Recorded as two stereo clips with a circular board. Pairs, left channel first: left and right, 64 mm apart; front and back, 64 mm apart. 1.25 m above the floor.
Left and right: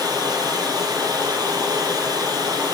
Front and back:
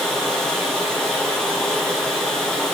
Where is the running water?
85° right, 8.5 m.